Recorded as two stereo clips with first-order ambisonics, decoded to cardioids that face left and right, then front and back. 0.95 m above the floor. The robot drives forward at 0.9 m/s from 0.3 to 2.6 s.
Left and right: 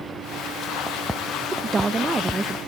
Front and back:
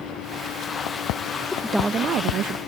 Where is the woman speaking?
40° right; by 2.6 s 170° right.